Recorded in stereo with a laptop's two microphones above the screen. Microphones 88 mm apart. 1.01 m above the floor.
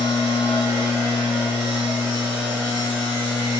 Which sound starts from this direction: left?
A machine running, at 0.0 s.